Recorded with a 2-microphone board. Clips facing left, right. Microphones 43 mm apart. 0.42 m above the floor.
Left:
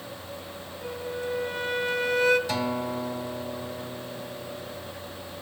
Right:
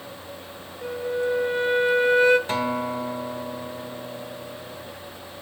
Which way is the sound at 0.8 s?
30° right (ahead or behind).